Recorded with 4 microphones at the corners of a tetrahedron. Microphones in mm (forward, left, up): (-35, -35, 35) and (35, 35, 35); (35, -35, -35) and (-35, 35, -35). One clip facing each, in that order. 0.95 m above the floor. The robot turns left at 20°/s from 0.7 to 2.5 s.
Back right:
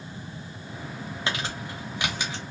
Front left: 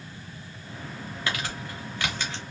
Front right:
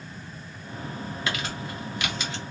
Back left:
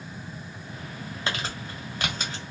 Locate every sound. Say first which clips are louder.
1.3 s crumpling: even, back left 1 dB; 175° left, 0.9 m; by 2.4 s 150° left, 0.9 m